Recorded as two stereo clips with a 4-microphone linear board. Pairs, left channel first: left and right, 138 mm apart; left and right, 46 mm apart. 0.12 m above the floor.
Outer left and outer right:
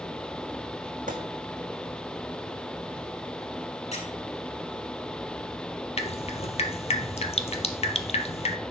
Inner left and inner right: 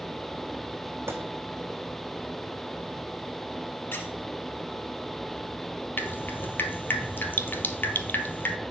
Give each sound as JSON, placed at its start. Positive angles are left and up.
{"t": 1.1, "sound": "a gunshot", "side_deg": -60, "distance_m": 1.3}
{"t": 3.9, "sound": "a squeak", "side_deg": 50, "distance_m": 1.8}
{"t": 6.0, "sound": "dripping", "side_deg": 45, "distance_m": 0.7}